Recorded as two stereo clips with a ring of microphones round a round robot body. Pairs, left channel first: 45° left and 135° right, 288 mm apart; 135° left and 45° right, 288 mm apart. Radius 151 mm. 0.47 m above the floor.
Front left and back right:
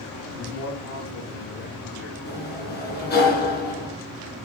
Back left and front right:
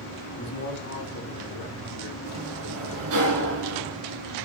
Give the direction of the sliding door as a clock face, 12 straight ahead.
1 o'clock.